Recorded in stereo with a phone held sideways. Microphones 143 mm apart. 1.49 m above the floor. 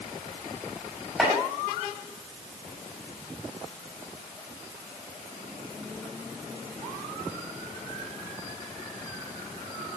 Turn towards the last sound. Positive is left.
turn(degrees=0)  # may be behind; listen again after turning